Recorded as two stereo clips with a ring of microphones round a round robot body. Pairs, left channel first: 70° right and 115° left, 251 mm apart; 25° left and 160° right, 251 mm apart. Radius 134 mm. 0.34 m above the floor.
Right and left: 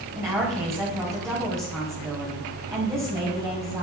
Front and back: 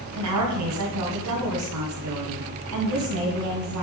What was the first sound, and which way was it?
A woman speaking, 170° right.